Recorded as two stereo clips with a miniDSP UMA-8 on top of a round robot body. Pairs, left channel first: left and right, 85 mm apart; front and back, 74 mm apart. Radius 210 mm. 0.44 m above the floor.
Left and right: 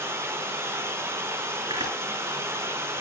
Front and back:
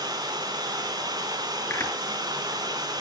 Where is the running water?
150° right, 4.5 m.